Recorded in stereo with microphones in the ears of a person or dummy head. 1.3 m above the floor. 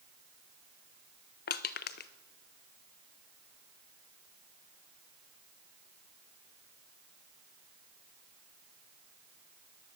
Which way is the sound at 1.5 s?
55° left (ahead or behind).